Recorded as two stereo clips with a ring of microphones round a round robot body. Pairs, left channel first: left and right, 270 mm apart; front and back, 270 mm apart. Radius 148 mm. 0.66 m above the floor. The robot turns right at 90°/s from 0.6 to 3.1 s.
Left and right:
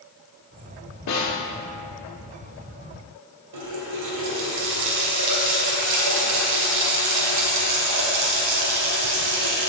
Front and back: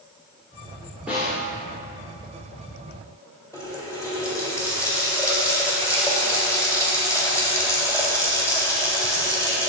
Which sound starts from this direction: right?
A running tap, at 3.5 s.